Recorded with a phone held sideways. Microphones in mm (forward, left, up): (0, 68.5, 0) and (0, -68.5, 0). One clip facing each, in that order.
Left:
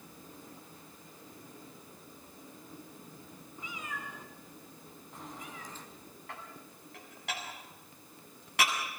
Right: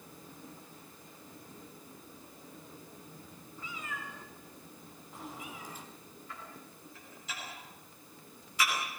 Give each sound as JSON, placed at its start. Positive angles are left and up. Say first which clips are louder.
{"t": 3.6, "sound": "a cat meowing", "louder": "even", "side_deg": 20, "distance_m": 4.5}
{"t": 6.3, "sound": "dishes clattering", "louder": "left 1 dB", "side_deg": 70, "distance_m": 8.5}